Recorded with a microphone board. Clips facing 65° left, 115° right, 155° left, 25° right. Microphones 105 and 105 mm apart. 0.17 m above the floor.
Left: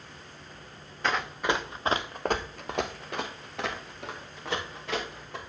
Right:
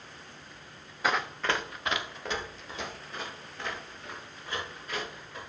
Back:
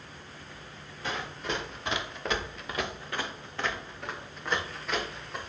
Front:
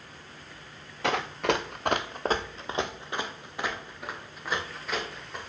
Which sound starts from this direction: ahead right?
Running footsteps, at 1.0 s.